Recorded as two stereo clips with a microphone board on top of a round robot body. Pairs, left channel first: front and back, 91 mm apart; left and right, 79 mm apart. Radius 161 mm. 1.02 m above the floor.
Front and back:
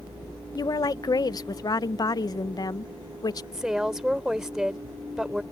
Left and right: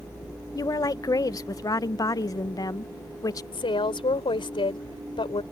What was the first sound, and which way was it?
A woman speaking, 45° left.